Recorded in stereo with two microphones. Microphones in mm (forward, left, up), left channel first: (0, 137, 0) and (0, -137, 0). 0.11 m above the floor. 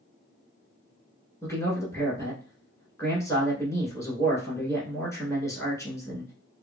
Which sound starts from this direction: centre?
A man speaking, at 1.4 s.